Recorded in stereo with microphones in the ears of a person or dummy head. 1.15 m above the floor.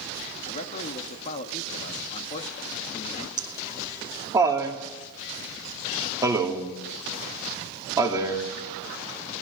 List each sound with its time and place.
0.5 s a man speaking: 40° left (ahead or behind), 2.0 m
3.4 s laughter: 15° right (ahead or behind), 2.5 m